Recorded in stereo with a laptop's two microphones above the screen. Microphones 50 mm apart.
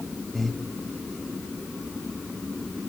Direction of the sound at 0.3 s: 5° left (ahead or behind).